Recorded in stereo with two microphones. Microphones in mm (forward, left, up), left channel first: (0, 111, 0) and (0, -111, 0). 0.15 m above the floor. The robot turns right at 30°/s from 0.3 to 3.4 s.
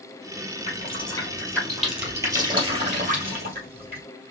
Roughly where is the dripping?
Left.